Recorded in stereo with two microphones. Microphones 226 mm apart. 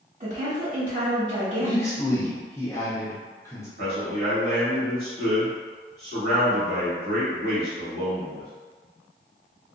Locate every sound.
0.2 s a woman speaking: 40° right (ahead or behind), 1.5 m
1.6 s a man speaking: 10° left (ahead or behind), 0.7 m
3.8 s a man speaking: 45° right (ahead or behind), 1.5 m